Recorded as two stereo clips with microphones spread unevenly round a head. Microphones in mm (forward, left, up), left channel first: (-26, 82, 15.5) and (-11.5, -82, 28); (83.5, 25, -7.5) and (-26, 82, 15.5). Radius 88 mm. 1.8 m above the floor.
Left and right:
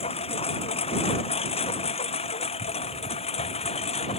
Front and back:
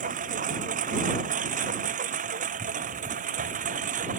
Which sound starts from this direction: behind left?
A lawn mower, at 0.0 s.